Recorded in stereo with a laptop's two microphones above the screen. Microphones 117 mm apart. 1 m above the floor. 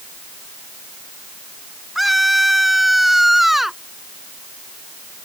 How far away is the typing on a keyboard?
No typing on a keyboard in this recording.